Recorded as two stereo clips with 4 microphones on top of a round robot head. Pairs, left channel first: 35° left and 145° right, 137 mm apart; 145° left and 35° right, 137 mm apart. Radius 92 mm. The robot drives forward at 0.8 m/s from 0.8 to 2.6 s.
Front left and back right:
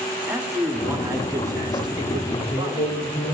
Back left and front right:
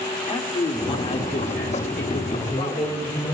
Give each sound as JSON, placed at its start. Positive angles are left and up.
{"t": 0.3, "sound": "a man speaking", "azimuth_deg": 145, "distance_m": 1.2}
{"t": 2.3, "sound": "a man speaking", "azimuth_deg": 80, "distance_m": 2.0}